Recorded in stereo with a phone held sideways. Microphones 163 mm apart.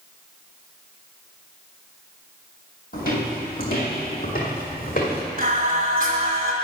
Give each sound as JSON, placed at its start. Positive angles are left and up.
{"t": 2.9, "sound": "footsteps", "side_deg": 65, "distance_m": 2.5}
{"t": 5.4, "sound": "singing", "side_deg": -55, "distance_m": 1.6}